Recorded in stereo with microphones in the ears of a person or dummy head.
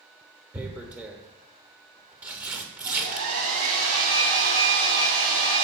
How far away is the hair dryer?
About 3 m.